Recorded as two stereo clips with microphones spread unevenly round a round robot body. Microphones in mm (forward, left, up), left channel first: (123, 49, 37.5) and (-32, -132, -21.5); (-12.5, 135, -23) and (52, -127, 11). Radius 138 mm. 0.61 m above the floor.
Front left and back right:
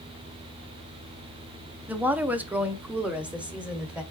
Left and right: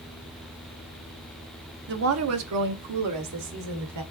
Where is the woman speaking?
75° right, 0.7 m; by 4.0 s 50° right, 1.8 m.